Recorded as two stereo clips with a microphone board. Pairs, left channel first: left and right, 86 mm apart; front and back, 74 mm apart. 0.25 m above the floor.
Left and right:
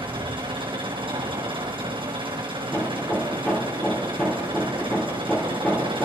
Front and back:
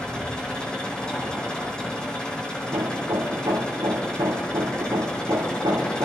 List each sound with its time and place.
0.0 s an engine running: 80° right, 3 m
2.6 s hammering: 165° left, 2.5 m